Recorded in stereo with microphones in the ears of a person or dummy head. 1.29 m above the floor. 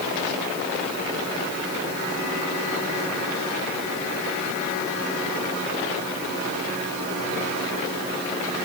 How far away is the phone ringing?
No phone ringing in this recording.